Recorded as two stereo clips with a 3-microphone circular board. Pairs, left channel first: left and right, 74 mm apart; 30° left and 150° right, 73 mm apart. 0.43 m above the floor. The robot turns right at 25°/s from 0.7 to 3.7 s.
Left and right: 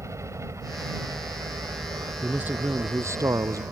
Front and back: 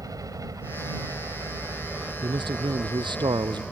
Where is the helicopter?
130° right; by 3.7 s 55° right.